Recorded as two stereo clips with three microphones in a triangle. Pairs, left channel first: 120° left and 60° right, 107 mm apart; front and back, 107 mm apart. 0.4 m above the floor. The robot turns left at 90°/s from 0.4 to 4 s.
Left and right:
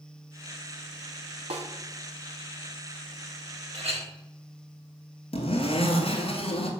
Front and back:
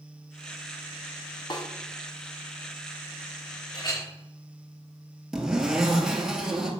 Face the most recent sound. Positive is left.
turn(degrees=95)